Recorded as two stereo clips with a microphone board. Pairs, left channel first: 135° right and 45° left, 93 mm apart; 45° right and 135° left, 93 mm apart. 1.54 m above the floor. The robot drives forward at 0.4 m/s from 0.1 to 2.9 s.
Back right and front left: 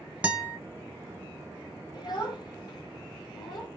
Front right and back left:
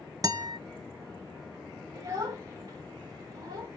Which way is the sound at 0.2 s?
115° left.